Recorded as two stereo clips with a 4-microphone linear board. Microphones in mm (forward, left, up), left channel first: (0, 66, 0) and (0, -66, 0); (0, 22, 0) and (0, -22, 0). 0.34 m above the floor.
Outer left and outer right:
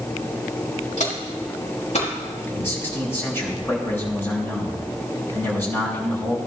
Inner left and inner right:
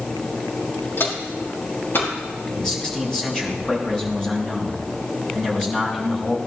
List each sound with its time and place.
1.0 s footsteps: 60° left (ahead or behind), 4.5 m
2.5 s a man speaking: 15° left (ahead or behind), 5.5 m